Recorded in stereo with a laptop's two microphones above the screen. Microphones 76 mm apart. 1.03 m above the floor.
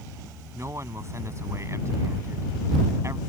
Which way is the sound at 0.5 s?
40° right (ahead or behind).